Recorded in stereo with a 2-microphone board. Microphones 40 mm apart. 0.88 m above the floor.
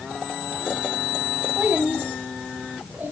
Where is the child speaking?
45° right (ahead or behind), 1.0 m; by 3.1 s 50° right (ahead or behind), 3 m.